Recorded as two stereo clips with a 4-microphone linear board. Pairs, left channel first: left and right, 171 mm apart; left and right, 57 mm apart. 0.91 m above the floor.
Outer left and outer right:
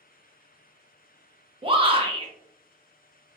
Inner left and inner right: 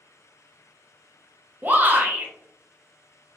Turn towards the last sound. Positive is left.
turn(degrees=-30)  # may be behind; listen again after turning